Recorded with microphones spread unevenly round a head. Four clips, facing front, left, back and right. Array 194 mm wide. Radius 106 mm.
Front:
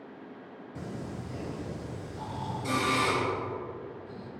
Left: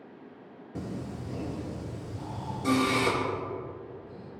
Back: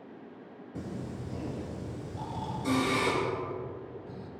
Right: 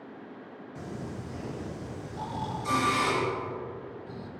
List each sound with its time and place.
0.8 s singing: 105° left, 3 m
2.1 s snoring: 130° right, 1.9 m